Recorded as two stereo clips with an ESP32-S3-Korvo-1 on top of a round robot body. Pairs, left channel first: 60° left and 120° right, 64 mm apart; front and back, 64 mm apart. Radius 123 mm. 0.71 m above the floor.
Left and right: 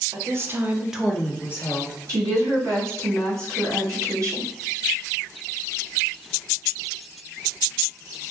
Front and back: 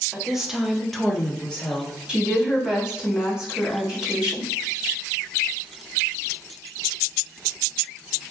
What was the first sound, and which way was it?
A woman speaking, 100° right.